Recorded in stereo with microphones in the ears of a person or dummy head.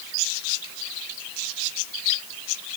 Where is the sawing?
No sawing in this recording.